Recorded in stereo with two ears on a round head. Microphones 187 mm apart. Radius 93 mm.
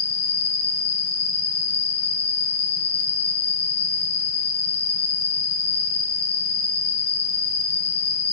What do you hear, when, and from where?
0.0 s an insect: 50° left (ahead or behind), 2 m